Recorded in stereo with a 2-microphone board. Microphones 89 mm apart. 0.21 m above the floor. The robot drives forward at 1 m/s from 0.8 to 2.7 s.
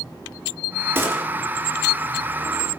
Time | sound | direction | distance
0.9 | a gunshot | 25° right (ahead or behind) | 3.5 m